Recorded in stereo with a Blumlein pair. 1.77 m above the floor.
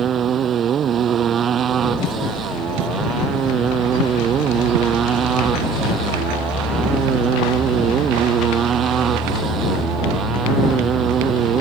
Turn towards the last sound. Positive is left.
turn(degrees=-25)